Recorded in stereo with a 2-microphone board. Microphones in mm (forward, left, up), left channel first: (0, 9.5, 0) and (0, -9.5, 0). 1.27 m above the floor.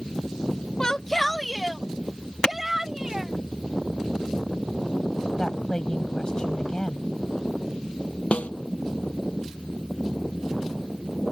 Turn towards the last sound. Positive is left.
turn(degrees=70)  # may be behind; listen again after turning